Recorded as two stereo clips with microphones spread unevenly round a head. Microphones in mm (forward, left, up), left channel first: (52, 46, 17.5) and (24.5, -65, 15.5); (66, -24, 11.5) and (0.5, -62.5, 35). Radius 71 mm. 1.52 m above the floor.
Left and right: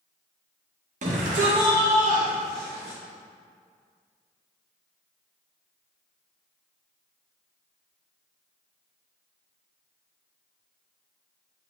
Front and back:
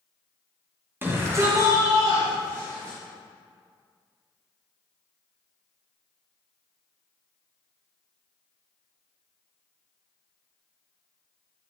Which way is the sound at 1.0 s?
90° right.